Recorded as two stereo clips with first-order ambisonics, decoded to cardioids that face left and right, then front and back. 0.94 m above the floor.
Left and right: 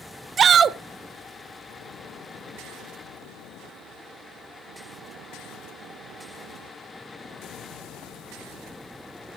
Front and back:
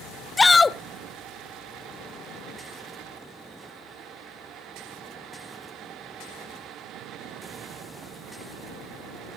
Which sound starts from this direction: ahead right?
A shout, at 0.4 s.